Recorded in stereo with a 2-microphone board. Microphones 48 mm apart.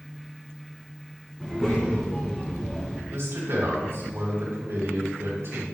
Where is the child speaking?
5° right (ahead or behind), 2 m; by 3.0 s 5° left (ahead or behind), 1.3 m.